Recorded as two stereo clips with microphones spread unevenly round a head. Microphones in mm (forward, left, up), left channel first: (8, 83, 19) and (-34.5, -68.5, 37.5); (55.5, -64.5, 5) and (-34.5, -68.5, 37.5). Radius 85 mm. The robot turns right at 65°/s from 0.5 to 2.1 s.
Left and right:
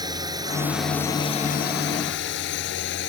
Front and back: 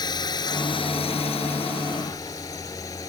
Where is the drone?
40° right; by 3.1 s 70° left.